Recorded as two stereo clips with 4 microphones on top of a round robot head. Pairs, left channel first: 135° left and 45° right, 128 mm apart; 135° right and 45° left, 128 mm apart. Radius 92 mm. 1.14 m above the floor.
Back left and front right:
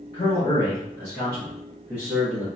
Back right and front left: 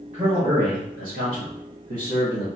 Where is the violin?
I don't hear a violin.